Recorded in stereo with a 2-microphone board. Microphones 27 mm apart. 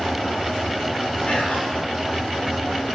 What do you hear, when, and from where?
1.3 s whispering: 65° left (ahead or behind), 5 m